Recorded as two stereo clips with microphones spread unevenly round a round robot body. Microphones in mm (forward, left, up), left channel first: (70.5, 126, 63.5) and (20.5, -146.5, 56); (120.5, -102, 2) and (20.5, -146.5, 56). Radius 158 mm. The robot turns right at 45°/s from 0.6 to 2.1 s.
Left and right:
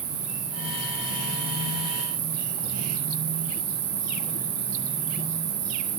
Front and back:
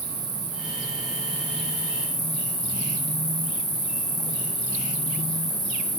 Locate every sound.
0.0 s an insect: 155° right, 3.5 m; by 6.0 s 90° right, 3.5 m